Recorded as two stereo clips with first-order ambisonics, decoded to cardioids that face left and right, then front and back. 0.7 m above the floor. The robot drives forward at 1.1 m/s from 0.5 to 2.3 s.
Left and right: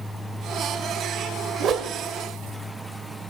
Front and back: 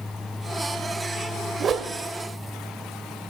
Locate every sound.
1.6 s a whoosh: 120° right, 0.5 m; by 1.9 s 150° right, 0.7 m